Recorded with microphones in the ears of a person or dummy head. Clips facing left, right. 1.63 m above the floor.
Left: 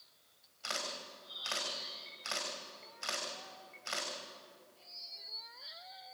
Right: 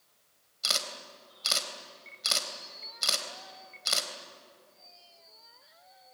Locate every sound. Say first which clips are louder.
0.6 s a camera shutter: right 3 dB; 55° right (ahead or behind), 3 m